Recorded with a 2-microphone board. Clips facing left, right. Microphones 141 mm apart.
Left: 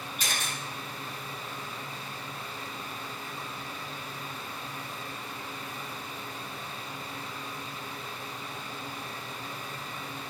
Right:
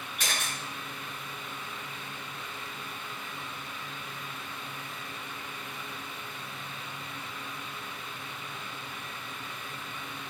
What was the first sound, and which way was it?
A camera shutter, 80° right.